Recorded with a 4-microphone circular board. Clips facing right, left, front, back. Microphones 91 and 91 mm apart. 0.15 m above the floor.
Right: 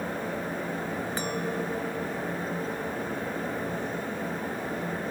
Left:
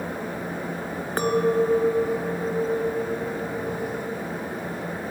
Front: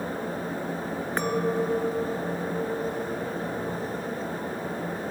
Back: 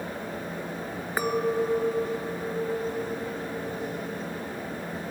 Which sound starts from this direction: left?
A clink, at 1.2 s.